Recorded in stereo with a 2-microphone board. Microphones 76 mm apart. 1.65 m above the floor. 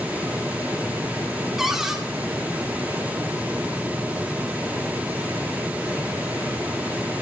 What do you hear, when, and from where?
1.6 s a cupboard door: 5° right (ahead or behind), 1.3 m